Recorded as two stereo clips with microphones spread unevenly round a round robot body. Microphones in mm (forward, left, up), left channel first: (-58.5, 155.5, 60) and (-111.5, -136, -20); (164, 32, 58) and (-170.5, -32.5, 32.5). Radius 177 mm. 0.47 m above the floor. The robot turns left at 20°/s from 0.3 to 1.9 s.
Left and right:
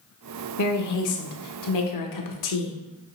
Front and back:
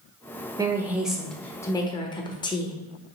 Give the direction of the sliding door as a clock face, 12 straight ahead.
No sliding door in this recording.